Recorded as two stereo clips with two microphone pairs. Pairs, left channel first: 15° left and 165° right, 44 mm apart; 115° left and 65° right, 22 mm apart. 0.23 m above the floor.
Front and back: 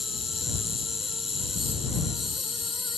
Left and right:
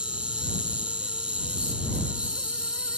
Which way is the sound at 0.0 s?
75° right.